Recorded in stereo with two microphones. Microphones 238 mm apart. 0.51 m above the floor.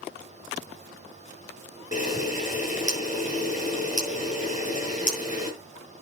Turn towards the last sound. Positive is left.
turn(degrees=35)  # may be behind; listen again after turning